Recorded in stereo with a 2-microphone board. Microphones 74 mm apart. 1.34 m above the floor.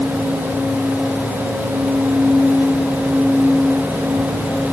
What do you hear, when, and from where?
Only background noise.